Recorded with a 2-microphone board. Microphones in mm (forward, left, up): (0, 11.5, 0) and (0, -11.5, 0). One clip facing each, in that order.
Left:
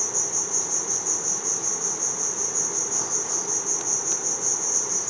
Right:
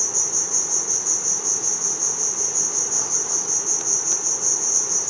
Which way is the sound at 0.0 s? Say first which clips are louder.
Right 4 dB; 30° right (ahead or behind).